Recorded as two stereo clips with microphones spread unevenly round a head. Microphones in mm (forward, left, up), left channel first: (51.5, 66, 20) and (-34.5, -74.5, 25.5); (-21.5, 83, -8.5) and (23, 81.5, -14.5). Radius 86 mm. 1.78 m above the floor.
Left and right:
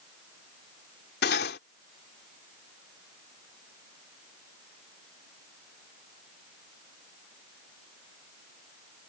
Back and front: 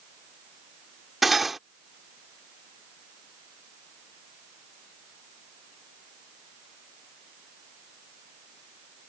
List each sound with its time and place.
1.2 s cutlery clinking: 90° left